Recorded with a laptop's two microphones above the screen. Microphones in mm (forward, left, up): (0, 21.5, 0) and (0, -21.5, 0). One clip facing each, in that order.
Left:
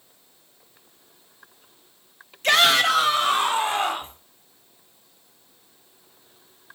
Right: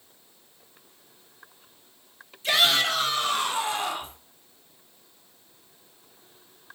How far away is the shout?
About 1.0 m.